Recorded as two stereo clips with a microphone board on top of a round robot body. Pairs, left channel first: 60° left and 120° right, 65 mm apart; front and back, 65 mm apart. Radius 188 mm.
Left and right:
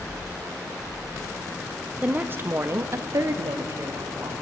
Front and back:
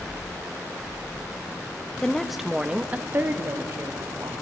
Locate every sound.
2.0 s a woman speaking: 70° right, 0.8 m; by 4.3 s 150° right, 1.4 m